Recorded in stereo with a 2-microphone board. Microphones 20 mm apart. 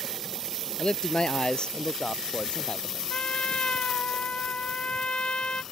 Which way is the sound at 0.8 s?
45° left (ahead or behind).